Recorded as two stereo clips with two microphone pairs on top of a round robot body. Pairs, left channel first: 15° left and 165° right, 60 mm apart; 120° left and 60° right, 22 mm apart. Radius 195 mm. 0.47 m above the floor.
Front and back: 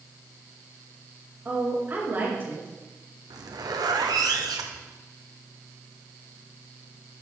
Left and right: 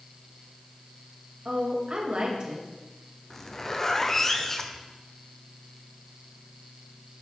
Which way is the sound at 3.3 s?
170° right.